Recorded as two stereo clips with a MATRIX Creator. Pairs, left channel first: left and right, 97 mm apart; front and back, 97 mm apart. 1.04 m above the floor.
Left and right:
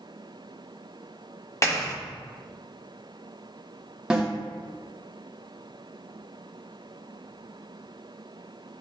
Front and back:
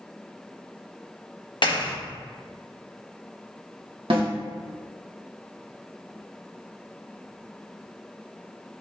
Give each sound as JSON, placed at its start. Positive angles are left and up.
{"t": 1.6, "sound": "a clap", "azimuth_deg": 30, "distance_m": 1.1}
{"t": 4.1, "sound": "a snare drum", "azimuth_deg": -170, "distance_m": 1.3}